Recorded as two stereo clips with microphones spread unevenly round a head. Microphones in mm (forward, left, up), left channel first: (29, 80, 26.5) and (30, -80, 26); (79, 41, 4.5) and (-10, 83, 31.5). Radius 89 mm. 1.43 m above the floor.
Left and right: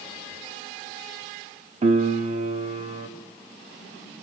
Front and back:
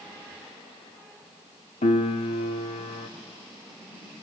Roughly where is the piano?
Ahead right.